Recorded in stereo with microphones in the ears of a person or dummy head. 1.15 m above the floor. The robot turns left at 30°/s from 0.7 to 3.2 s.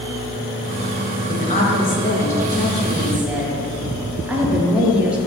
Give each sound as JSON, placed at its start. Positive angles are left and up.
{"t": 1.3, "sound": "a woman speaking", "azimuth_deg": 50, "distance_m": 1.9}